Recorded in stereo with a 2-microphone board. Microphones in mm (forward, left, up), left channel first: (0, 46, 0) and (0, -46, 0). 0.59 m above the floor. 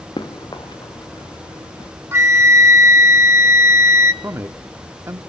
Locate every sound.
0.2 s running footsteps: 55° left (ahead or behind), 2 m; by 1.9 s 45° left (ahead or behind), 3.5 m
2.1 s a flute: 25° right (ahead or behind), 0.7 m
4.2 s a man speaking: 30° right (ahead or behind), 0.9 m